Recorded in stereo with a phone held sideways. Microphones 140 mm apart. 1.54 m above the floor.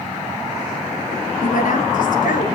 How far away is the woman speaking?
About 2.5 m.